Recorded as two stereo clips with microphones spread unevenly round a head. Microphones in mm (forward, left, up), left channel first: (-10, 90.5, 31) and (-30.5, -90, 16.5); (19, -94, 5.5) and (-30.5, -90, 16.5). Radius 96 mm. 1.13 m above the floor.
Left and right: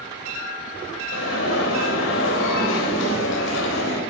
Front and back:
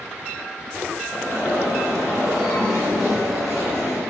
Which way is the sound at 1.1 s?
90° left.